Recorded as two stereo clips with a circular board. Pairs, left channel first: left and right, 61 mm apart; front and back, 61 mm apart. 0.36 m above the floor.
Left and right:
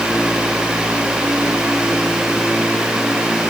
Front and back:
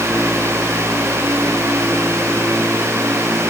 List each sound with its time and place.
Only background noise.